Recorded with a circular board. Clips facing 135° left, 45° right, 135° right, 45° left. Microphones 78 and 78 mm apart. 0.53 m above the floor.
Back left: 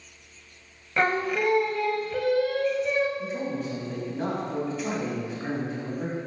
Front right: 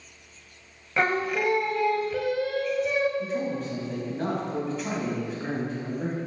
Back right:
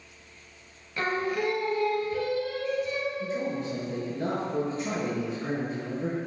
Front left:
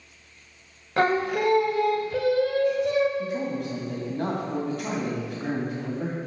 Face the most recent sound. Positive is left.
turn(degrees=45)